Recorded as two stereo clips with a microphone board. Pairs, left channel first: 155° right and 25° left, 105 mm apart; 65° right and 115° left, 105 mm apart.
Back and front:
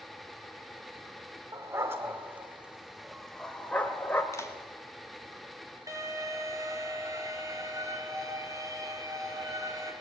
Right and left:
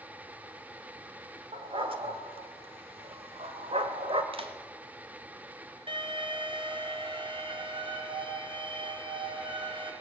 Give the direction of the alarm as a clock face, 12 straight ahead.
9 o'clock.